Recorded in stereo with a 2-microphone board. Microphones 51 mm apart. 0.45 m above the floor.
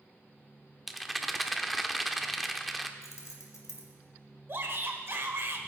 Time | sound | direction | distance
0.9 | a rattle | centre (ahead or behind) | 0.7 m
3.0 | keys jangling | 75° left (ahead or behind) | 1.9 m
4.5 | a shout | 50° right (ahead or behind) | 1.9 m